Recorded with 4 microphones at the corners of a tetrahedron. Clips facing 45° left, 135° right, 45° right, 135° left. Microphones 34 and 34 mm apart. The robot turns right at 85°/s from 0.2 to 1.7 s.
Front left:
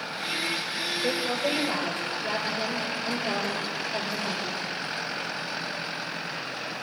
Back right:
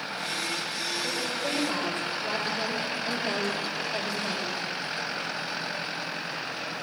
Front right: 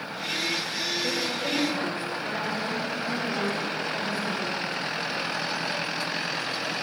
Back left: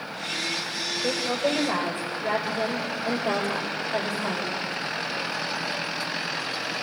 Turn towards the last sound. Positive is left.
turn(degrees=135)